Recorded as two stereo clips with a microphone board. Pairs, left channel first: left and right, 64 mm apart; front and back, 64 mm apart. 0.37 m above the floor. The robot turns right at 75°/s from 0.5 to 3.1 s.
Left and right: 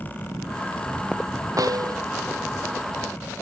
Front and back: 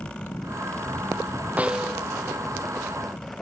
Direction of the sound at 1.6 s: 115° right.